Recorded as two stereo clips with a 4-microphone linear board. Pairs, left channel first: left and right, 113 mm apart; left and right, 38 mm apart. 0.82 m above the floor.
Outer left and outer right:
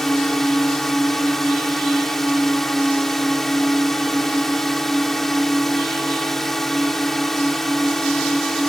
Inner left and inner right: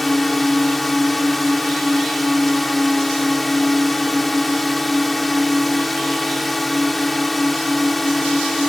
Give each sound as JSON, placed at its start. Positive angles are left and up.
{"t": 0.0, "sound": "a drone", "side_deg": 0}